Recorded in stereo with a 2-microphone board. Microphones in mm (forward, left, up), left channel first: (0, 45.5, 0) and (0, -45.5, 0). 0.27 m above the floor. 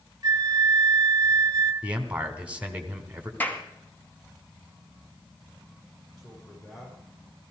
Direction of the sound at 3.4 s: 20° left (ahead or behind).